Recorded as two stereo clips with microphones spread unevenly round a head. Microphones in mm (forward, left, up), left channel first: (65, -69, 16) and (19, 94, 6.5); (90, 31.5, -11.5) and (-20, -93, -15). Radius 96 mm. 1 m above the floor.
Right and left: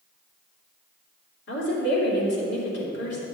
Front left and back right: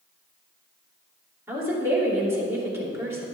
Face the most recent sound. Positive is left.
turn(degrees=-55)